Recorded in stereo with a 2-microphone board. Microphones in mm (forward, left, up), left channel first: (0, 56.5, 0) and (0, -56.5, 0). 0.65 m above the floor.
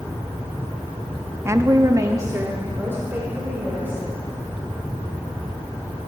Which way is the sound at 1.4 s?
20° right (ahead or behind).